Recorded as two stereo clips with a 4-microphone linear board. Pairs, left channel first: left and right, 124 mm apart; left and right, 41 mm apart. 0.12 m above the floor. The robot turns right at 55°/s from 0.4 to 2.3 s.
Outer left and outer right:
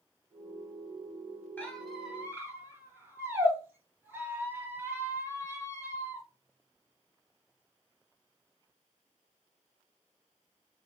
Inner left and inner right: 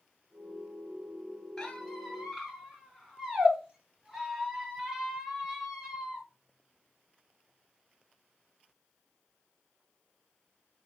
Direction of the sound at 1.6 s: 160° left.